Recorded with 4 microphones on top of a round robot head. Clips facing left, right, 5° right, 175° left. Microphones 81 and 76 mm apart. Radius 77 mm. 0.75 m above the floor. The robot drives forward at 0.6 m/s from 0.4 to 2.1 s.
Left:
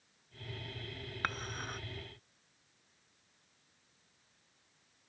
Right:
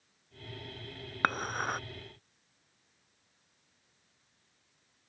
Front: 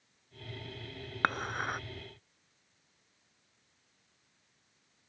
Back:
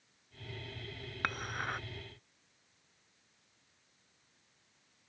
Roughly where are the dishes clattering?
Ahead right.